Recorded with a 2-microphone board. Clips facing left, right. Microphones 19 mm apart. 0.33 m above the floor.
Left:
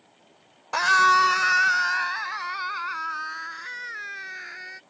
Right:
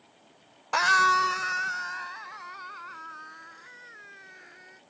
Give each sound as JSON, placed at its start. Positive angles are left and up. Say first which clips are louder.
{"t": 0.7, "sound": "a scream", "louder": "left 3 dB", "side_deg": 0}